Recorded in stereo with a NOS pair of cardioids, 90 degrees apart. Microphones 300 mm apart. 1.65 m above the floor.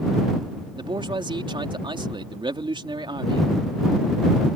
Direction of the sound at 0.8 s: 15° right.